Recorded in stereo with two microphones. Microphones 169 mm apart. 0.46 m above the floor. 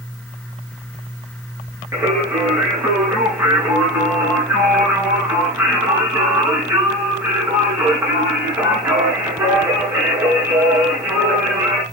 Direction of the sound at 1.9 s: 15° right (ahead or behind).